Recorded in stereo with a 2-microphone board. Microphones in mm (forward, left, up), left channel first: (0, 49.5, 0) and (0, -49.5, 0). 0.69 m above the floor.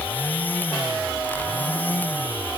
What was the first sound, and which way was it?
Only background noise.